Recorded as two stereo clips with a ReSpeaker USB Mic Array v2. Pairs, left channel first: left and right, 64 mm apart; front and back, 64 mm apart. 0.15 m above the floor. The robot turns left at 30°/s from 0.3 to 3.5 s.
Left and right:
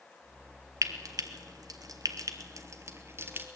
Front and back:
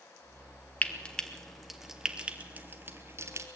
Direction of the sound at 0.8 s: 65° right.